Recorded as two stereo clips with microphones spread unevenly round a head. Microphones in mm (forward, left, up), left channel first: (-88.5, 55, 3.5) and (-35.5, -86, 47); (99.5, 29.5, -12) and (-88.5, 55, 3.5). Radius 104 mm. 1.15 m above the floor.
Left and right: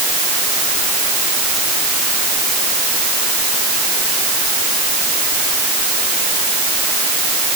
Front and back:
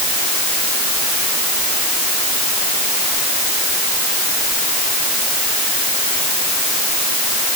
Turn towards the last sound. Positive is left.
No sound to turn to.